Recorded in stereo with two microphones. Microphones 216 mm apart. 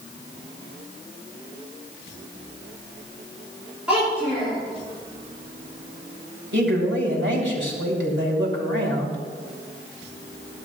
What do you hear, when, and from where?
3.9 s a child speaking: 5° right (ahead or behind), 6.5 m
6.5 s a man speaking: 70° right (ahead or behind), 3.5 m